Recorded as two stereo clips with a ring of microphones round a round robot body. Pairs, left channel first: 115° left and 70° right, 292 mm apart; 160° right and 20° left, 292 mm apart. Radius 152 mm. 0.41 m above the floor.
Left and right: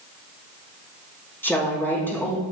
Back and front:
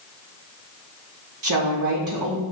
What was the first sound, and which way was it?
A woman speaking, 30° left.